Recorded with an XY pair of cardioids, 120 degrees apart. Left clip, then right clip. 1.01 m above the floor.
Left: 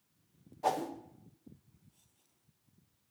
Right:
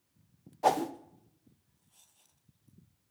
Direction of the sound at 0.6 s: 40° right.